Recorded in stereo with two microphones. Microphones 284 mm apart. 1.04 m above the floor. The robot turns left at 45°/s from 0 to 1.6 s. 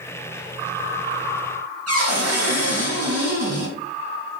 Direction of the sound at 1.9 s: 60° right (ahead or behind).